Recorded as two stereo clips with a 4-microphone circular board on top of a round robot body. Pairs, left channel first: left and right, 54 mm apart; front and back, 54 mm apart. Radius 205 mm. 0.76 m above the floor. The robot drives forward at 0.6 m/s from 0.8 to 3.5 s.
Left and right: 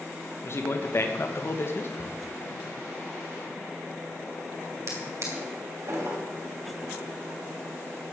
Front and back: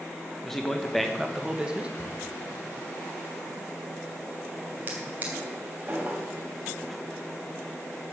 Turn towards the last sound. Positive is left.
turn(degrees=-120)